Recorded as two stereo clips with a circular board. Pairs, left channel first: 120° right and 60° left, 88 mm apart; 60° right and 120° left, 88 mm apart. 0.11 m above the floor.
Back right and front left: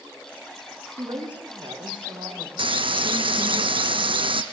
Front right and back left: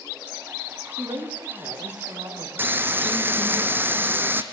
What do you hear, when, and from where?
1.0 s a woman speaking: 95° left, 7.5 m; by 3.6 s 70° left, 6 m
2.6 s frying: 55° left, 1.1 m